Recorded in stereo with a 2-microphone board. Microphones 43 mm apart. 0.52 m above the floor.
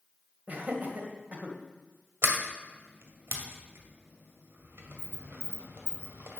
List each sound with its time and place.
0.5 s laughter: 40° right (ahead or behind), 2 m
2.2 s a sliding door: 60° right (ahead or behind), 1.9 m